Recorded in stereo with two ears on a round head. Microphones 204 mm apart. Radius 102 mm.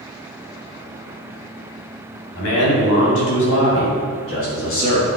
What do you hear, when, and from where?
2.3 s a man speaking: 70° left (ahead or behind), 3 m; by 5.2 s 65° left (ahead or behind), 5 m